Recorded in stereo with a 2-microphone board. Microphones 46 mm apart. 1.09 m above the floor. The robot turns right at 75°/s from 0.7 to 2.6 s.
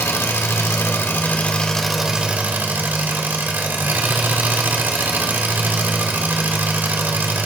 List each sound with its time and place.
0.0 s an engine running: 85° left, 2 m; by 7.5 s 130° right, 2 m